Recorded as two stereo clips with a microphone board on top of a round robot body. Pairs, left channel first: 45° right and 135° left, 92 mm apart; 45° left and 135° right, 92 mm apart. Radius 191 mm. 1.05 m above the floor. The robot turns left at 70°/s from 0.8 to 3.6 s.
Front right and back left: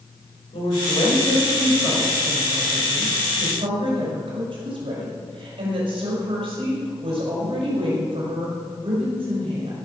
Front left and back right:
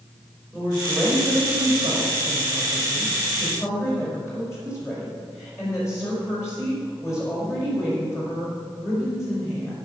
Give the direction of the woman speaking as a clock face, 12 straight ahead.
2 o'clock.